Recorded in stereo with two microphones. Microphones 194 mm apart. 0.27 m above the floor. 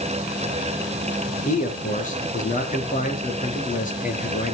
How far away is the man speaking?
About 5 m.